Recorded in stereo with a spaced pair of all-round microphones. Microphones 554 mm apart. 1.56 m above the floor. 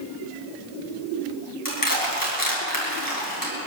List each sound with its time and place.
1.6 s crushing: 35° left (ahead or behind), 8.5 m